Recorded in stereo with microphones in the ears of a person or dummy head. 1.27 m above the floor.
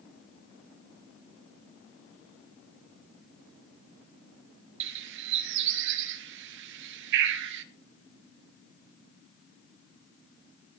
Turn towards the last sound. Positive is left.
turn(degrees=-70)  # may be behind; listen again after turning